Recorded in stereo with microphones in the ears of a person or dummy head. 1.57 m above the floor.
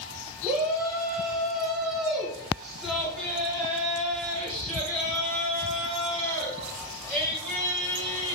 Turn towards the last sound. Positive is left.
turn(degrees=-5)  # may be behind; listen again after turning